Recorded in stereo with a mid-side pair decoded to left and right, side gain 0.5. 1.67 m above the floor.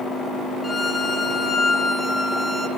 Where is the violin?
25° left, 1.0 m.